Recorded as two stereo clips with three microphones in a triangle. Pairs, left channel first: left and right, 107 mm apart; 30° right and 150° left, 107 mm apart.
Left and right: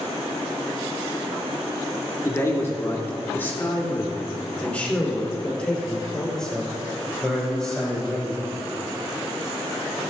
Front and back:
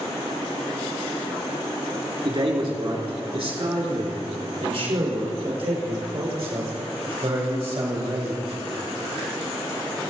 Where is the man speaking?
145° left, 2.5 m; by 8.5 s 175° left, 6 m.